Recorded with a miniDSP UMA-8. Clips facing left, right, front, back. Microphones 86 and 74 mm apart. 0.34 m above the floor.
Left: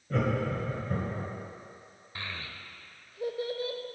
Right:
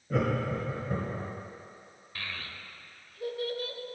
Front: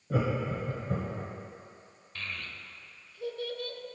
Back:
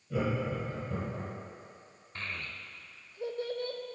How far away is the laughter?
About 1.3 m.